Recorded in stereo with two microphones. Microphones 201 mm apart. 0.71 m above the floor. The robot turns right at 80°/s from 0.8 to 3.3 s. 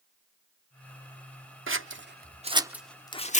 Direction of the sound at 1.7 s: 85° right.